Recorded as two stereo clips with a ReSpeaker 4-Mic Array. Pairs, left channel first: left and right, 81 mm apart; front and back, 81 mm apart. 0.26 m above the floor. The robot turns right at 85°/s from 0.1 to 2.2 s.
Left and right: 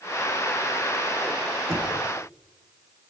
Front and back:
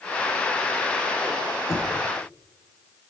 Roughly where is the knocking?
Ahead right.